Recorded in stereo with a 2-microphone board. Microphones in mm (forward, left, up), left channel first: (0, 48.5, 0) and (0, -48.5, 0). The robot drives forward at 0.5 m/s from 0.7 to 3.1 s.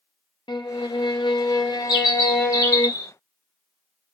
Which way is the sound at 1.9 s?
55° left (ahead or behind).